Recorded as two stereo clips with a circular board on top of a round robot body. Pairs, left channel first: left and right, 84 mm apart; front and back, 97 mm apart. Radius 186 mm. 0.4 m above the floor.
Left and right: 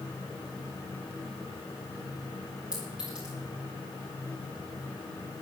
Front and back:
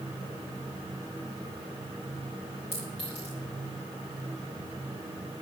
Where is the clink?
10° right, 9 m.